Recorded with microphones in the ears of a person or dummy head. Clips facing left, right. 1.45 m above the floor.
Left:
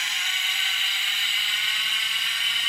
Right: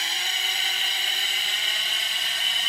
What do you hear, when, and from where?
0.0 s a drone: 30° right (ahead or behind); by 2.7 s 35° right (ahead or behind)